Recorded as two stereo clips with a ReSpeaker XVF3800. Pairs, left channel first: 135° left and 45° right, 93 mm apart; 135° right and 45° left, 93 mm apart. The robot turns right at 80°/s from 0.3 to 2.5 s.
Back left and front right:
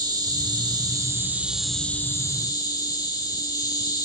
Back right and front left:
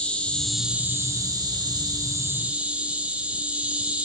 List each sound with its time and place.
0.0 s an insect: 60° right, 1.7 m; by 4.1 s 115° left, 1.7 m